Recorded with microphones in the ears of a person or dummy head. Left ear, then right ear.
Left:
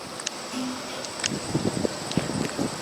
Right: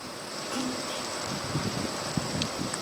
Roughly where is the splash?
Centre.